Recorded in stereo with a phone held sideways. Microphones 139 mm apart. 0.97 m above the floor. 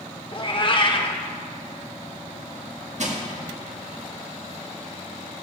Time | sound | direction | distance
0.3 | a cat meowing | 40° left (ahead or behind) | 0.9 m
3.0 | crushing | 55° right (ahead or behind) | 1.8 m